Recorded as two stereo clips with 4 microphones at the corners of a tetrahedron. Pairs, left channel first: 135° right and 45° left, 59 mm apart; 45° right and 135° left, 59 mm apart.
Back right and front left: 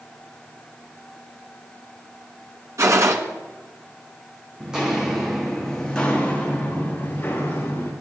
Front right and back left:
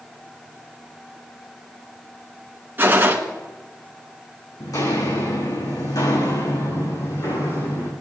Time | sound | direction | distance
2.8 | a gunshot | 80° left | 1.4 m
4.6 | footsteps | 30° right | 3 m